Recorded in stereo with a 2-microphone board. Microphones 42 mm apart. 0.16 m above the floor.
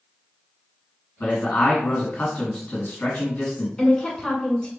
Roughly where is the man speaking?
Left.